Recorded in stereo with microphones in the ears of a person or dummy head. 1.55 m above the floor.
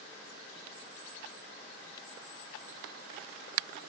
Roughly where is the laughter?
I don't hear laughter.